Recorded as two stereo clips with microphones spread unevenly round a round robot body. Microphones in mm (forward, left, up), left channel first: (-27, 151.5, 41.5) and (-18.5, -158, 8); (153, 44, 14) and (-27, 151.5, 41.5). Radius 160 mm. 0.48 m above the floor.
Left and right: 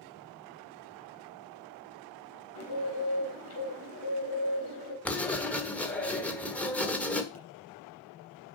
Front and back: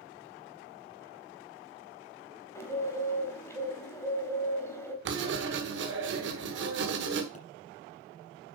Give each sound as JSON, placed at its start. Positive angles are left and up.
{"t": 2.5, "sound": "a bird", "azimuth_deg": 45, "distance_m": 4.0}
{"t": 5.0, "sound": "writing", "azimuth_deg": 180, "distance_m": 1.5}
{"t": 7.3, "sound": "a pop", "azimuth_deg": 25, "distance_m": 5.5}